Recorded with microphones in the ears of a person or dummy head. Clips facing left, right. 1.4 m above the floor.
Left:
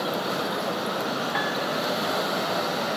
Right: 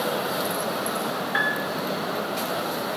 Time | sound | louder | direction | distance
1.3 | a piano | left 1 dB | 10° right (ahead or behind) | 2 m